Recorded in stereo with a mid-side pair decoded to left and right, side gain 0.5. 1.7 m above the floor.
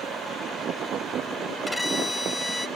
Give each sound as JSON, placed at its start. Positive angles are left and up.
{"t": 1.7, "sound": "a violin", "azimuth_deg": 15}